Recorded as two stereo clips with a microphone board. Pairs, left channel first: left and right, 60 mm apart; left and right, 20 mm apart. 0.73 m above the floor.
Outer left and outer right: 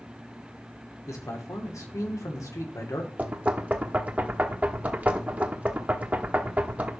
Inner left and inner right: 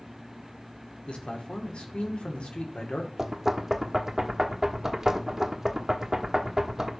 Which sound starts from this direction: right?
Knocking, at 3.2 s.